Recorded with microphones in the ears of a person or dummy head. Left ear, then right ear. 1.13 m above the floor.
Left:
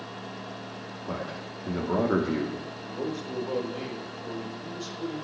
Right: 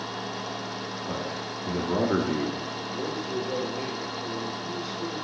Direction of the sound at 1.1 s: 10° left (ahead or behind).